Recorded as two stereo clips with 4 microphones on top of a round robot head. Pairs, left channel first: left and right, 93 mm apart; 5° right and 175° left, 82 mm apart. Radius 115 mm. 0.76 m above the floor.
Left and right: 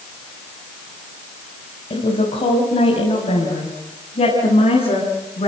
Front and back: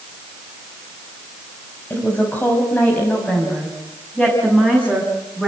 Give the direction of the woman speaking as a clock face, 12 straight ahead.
10 o'clock.